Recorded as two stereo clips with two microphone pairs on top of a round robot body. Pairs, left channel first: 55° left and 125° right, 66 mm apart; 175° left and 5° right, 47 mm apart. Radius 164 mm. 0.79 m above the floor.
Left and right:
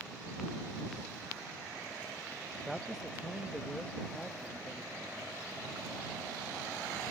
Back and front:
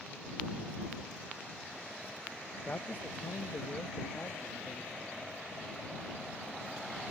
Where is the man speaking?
145° left; by 5.3 s 130° left.